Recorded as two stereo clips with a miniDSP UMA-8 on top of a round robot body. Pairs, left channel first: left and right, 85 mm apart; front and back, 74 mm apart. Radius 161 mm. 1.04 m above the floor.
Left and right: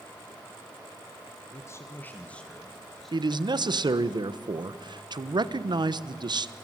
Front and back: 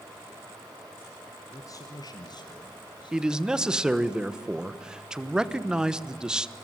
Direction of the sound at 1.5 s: 45° left.